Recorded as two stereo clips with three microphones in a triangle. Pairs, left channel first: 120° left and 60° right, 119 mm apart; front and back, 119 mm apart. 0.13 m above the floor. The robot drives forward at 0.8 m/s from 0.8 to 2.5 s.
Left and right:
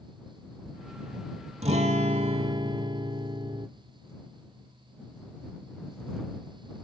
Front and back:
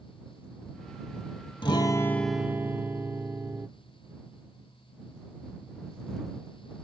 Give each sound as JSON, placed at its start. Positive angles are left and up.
{"t": 1.6, "sound": "a guitar", "azimuth_deg": -45, "distance_m": 0.8}